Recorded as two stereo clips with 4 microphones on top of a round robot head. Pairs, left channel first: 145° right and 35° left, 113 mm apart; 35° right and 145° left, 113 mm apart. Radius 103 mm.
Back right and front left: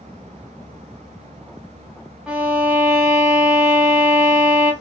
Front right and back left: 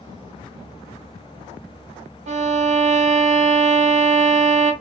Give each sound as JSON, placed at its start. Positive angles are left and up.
{"t": 2.3, "sound": "a violin", "azimuth_deg": 120, "distance_m": 0.7}